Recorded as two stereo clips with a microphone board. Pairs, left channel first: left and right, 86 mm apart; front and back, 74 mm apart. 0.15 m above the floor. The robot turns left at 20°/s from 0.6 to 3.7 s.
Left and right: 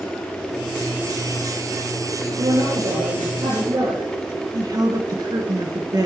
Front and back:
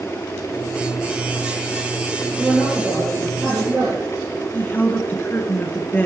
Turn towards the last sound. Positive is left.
turn(degrees=-60)